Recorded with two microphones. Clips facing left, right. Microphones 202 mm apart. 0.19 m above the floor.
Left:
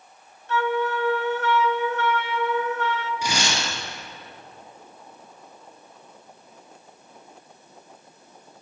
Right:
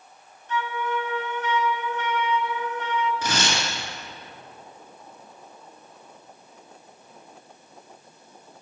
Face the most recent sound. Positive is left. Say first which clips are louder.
# even
turn(degrees=15)  # may be behind; listen again after turning